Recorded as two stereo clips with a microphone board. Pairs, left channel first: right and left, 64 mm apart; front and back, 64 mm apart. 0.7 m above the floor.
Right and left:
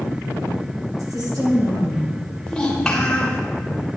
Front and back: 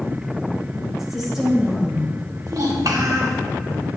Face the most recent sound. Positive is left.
turn(degrees=-170)